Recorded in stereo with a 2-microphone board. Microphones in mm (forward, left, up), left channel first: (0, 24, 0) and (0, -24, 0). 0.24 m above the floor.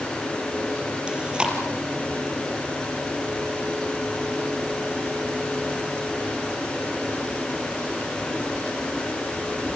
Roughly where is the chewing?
Centre.